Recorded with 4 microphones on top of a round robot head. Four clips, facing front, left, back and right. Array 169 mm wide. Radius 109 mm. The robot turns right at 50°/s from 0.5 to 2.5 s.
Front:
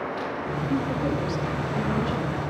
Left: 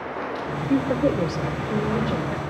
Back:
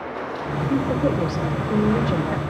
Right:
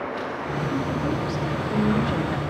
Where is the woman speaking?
115° left, 2 m; by 2.4 s 160° right, 2 m.